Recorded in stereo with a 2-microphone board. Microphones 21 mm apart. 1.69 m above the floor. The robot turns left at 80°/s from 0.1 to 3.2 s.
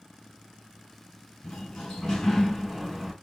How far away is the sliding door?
About 2.5 m.